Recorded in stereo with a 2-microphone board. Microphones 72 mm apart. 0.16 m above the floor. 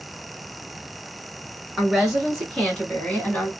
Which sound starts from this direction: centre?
A woman speaking, at 1.8 s.